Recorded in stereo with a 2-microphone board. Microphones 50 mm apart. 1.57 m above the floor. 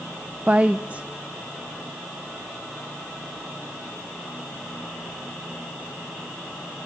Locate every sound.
0.5 s a woman speaking: 25° right (ahead or behind), 0.6 m